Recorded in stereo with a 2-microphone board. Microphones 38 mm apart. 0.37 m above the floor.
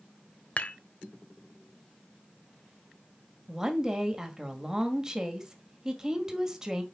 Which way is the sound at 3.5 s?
20° right (ahead or behind).